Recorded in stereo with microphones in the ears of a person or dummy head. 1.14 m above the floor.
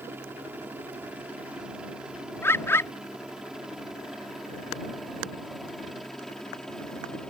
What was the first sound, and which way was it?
A helicopter, 10° right (ahead or behind).